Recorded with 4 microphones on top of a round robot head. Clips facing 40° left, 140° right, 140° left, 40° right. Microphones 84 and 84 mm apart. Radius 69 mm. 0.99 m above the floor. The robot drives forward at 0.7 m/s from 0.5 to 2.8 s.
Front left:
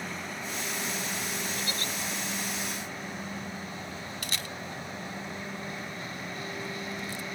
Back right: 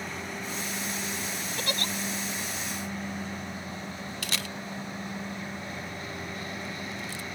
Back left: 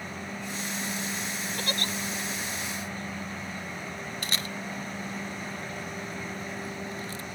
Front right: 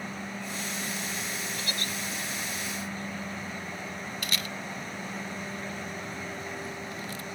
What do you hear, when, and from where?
1.6 s a giggle: 175° right
4.2 s a camera shutter: 155° right